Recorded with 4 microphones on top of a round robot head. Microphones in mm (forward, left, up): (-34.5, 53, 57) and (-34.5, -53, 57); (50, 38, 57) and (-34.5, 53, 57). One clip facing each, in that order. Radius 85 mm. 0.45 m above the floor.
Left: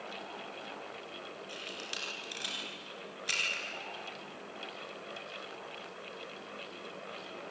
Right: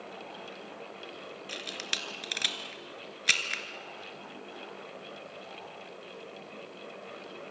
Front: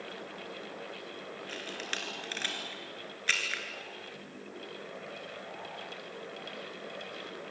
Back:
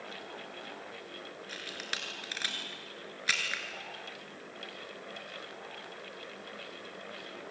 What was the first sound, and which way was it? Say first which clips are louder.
A camera shutter: right 3 dB, front 2 dB; 105° right.